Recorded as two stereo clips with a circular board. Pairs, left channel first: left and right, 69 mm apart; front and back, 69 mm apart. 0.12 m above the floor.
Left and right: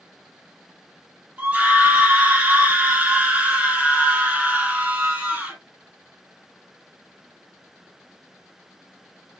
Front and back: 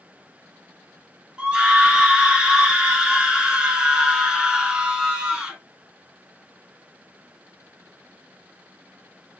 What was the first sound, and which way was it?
A scream, 130° right.